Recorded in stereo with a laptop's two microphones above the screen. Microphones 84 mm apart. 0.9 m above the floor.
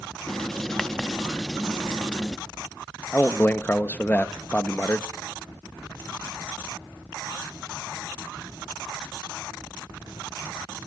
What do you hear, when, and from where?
0.3 s writing: 5° left (ahead or behind), 0.6 m
3.1 s a man speaking: 20° left (ahead or behind), 1.0 m